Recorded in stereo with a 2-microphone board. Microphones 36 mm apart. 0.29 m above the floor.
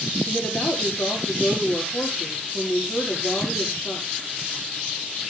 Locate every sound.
0.2 s a woman speaking: 80° left, 6.5 m